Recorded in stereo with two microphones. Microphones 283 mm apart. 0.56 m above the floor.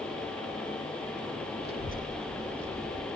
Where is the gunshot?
No gunshot in this recording.